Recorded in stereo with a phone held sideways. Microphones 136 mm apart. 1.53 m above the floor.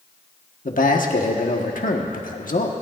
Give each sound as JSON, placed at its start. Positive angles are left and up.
{"t": 0.7, "sound": "a man speaking", "side_deg": 85, "distance_m": 1.4}